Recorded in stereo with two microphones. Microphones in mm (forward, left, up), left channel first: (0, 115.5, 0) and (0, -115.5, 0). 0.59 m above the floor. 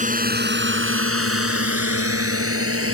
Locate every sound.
0.0 s a drone: 35° right (ahead or behind); by 2.9 s 70° right (ahead or behind)